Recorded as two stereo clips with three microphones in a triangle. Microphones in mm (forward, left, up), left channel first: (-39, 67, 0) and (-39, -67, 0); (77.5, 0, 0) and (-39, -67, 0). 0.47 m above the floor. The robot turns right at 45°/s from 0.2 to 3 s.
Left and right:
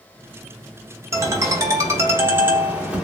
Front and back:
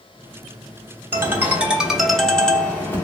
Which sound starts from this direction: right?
A ringtone, at 1.1 s.